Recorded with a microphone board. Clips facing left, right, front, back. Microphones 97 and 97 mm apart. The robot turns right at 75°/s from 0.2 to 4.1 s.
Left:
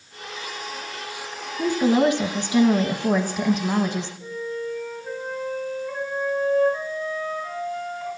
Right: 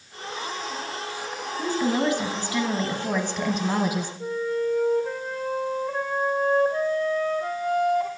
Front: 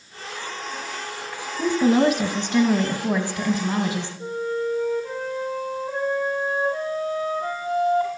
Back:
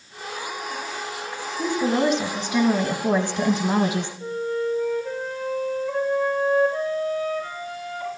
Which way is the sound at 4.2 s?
60° right.